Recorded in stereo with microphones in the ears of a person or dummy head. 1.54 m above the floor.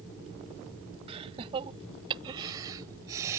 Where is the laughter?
30° right (ahead or behind); by 3.4 s 15° right (ahead or behind).